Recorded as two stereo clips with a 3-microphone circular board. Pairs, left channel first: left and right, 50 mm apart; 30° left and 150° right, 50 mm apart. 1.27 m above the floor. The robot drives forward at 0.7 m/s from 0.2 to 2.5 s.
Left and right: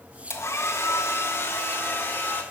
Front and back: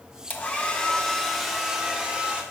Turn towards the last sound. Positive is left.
turn(degrees=140)